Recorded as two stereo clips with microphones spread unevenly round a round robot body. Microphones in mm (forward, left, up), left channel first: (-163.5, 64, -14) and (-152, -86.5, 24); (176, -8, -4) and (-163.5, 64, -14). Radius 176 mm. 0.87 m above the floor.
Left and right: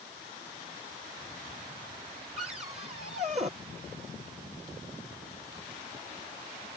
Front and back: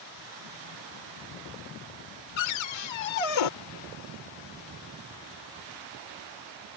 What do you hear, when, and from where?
2.4 s a cupboard door: 10° right